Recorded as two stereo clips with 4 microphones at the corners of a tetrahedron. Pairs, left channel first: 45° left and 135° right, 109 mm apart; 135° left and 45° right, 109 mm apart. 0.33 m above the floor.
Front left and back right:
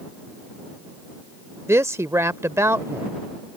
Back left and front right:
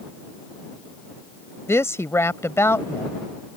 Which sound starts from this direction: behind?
A woman speaking, at 1.7 s.